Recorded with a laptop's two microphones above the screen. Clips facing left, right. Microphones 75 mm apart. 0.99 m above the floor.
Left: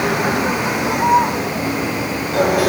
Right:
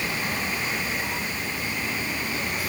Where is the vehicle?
70° left (ahead or behind).